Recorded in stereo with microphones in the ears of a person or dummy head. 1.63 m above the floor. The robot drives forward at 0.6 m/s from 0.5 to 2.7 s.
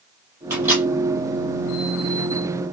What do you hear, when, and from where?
0.5 s a microwave: 10° right (ahead or behind), 1.7 m; by 0.9 s 15° right (ahead or behind), 1.5 m